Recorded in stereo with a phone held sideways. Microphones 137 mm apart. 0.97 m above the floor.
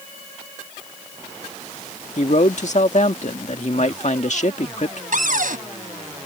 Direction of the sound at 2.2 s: 60° left (ahead or behind).